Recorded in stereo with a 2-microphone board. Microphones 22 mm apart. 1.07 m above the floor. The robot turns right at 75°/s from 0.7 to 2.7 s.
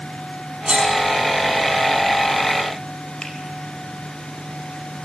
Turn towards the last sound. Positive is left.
turn(degrees=45)  # may be behind; listen again after turning